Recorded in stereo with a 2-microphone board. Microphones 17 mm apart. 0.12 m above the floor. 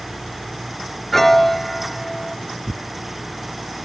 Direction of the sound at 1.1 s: 15° left (ahead or behind).